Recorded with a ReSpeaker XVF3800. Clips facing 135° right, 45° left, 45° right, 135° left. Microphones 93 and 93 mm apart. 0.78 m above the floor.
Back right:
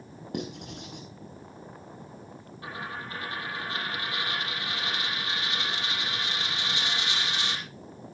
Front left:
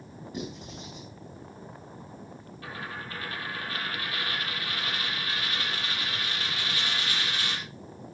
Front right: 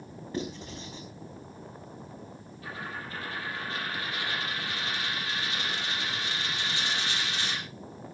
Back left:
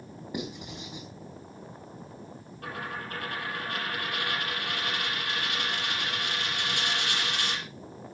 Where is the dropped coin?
160° left, 6 m.